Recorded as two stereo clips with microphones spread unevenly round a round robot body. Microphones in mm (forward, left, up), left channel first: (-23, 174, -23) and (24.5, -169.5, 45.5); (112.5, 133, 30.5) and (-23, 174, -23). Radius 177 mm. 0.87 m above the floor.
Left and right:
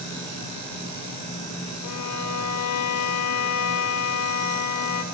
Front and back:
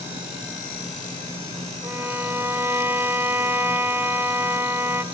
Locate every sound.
1.8 s a violin: 60° left, 0.6 m